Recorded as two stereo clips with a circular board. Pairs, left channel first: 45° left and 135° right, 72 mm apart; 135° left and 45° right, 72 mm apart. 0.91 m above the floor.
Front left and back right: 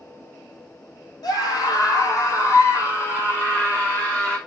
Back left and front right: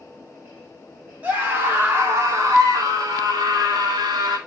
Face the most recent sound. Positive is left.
turn(degrees=-25)